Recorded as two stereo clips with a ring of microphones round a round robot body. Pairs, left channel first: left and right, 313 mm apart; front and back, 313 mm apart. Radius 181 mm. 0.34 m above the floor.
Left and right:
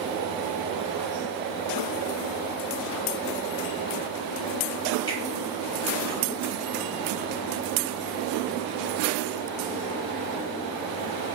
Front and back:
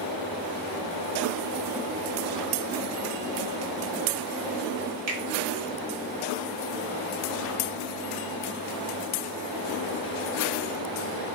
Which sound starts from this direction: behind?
A finger snap, at 5.1 s.